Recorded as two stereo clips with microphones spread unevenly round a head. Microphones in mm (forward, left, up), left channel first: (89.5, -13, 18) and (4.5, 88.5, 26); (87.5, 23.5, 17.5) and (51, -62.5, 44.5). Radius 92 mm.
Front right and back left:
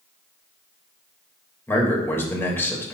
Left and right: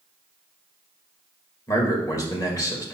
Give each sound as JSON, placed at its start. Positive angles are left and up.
{"t": 1.7, "sound": "a man speaking", "azimuth_deg": 20, "distance_m": 2.5}